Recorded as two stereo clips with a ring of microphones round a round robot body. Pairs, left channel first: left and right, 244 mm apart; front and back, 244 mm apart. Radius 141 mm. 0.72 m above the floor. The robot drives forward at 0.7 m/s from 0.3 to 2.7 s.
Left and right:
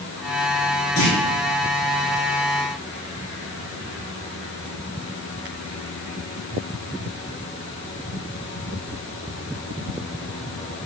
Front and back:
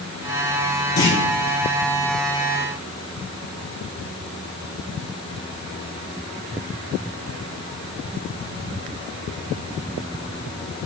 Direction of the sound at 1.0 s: 45° left.